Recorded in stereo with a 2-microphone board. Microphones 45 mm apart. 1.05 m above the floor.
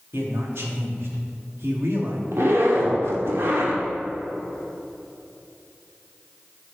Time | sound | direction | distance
0.1 | a man speaking | 65° right (ahead or behind) | 2 m
2.3 | a zipper | 70° right (ahead or behind) | 1.7 m